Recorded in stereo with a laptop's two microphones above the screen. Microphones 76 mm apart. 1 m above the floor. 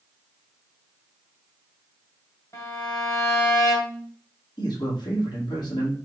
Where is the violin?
45° left (ahead or behind), 1.4 m.